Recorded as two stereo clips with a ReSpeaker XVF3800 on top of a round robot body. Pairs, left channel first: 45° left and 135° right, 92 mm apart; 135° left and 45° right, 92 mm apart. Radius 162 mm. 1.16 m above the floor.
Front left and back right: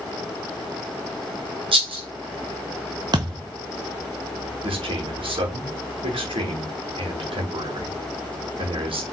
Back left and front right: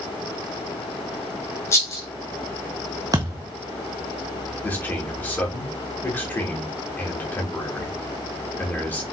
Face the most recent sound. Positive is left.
turn(degrees=-155)